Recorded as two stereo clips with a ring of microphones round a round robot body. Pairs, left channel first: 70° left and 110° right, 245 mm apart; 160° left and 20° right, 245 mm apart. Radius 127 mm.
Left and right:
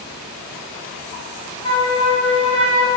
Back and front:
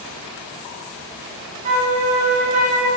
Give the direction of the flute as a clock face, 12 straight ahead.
12 o'clock.